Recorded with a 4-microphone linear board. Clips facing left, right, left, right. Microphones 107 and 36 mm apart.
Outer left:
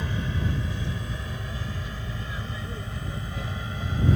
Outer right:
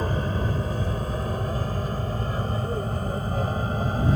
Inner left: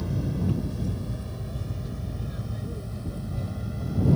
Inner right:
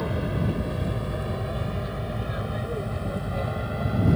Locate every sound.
0.0 s an aircraft: 45° right (ahead or behind)